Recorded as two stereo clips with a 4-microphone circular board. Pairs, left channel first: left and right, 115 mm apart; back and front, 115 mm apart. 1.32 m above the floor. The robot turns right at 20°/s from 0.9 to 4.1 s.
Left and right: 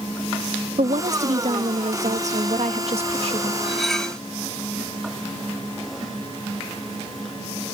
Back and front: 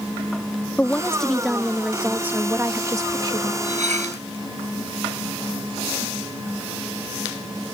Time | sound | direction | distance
0.8 | a woman speaking | 100° right | ?
3.6 | cutlery clinking | straight ahead | ?